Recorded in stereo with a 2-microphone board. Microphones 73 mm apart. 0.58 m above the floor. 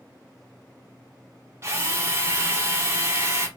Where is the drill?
35° right (ahead or behind), 1.5 m.